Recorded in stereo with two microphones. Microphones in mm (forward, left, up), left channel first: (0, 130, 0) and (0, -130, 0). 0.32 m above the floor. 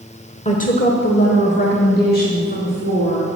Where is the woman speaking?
25° left (ahead or behind), 0.9 m; by 3.3 s 35° left (ahead or behind), 3 m.